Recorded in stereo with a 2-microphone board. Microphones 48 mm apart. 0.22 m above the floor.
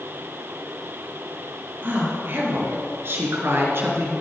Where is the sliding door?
I don't hear a sliding door.